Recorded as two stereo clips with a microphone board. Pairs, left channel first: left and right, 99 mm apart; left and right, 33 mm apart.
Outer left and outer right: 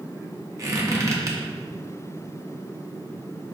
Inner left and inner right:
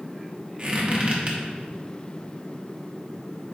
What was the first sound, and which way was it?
A squeak, 35° right (ahead or behind).